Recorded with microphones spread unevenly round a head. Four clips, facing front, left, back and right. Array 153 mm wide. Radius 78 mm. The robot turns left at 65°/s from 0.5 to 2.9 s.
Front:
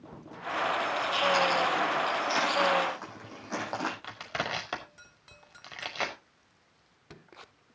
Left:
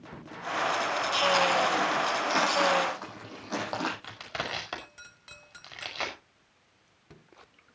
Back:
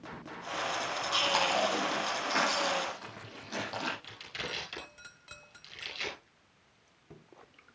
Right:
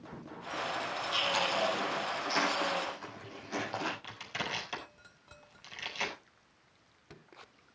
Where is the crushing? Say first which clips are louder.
Left 3 dB, front 8 dB; 25° left, 5 m.